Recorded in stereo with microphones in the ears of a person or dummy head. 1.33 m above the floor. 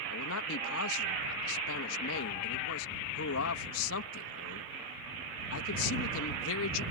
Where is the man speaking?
75° left (ahead or behind).